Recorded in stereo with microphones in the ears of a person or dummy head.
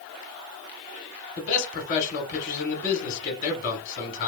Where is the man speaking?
40° left (ahead or behind), 0.9 m.